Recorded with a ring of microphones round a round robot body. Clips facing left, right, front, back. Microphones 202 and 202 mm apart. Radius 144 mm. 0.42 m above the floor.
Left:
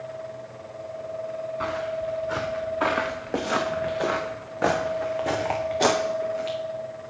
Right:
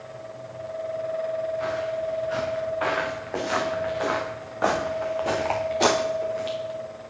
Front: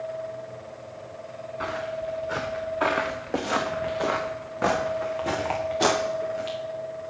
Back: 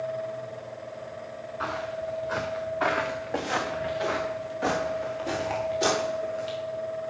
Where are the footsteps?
65° left, 3.5 m; by 6.6 s 5° right, 3.5 m.